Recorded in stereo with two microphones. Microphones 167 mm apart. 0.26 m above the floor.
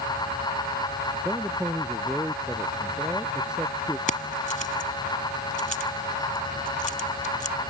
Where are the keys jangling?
55° left (ahead or behind).